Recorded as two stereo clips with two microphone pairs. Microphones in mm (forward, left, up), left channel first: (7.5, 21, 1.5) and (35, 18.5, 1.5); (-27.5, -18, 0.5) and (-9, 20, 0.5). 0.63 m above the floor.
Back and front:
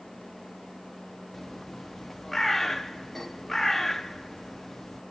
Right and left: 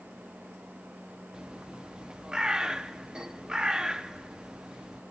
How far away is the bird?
About 0.9 m.